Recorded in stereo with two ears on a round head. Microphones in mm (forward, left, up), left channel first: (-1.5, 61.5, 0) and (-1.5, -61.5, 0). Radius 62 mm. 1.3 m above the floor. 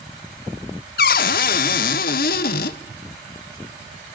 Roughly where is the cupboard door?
Left.